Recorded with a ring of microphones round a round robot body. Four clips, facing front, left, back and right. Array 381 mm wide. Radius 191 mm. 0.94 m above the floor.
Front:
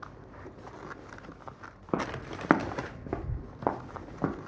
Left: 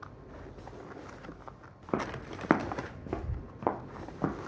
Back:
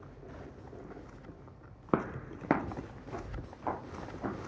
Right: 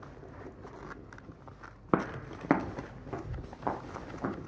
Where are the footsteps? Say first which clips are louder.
Right 3 dB, even; 110° right, 0.9 m; by 4.3 s 35° left, 2.5 m.